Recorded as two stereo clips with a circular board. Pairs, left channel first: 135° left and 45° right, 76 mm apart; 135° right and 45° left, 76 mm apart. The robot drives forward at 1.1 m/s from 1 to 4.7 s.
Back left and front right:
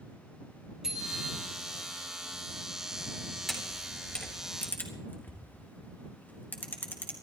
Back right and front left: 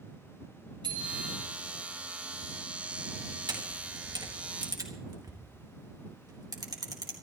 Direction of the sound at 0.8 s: 40° left.